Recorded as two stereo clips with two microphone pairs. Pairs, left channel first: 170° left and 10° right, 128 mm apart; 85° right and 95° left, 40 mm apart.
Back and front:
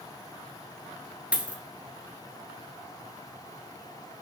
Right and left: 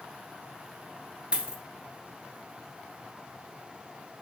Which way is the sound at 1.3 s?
60° left.